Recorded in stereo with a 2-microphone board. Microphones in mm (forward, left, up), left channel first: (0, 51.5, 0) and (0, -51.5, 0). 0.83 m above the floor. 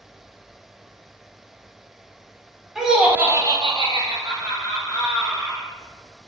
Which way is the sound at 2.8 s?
5° right (ahead or behind).